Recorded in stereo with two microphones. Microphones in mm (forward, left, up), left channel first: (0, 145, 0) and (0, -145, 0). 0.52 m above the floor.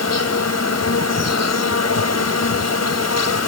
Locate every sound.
0.0 s an insect: 60° left (ahead or behind)